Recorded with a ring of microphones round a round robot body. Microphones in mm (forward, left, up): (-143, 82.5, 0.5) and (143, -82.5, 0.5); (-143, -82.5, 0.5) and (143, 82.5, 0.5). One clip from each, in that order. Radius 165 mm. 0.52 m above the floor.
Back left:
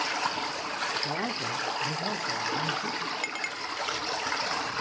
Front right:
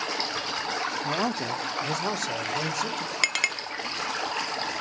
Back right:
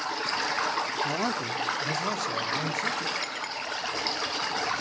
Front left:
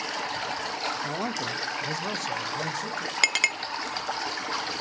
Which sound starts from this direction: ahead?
A clink, at 3.2 s.